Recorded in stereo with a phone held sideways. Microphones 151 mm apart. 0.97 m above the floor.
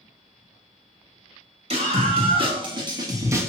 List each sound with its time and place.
1.7 s a scream: 45° right (ahead or behind), 2 m; by 3.5 s 15° right (ahead or behind), 1.1 m